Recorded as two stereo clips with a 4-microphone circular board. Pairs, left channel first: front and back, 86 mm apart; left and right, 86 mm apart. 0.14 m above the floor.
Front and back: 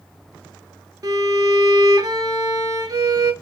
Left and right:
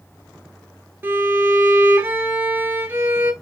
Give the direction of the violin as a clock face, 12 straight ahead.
5 o'clock.